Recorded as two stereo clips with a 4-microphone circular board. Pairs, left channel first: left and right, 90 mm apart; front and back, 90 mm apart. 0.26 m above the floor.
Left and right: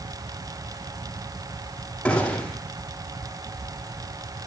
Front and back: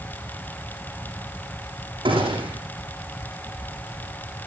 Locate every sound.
2.0 s a gunshot: 170° left, 8 m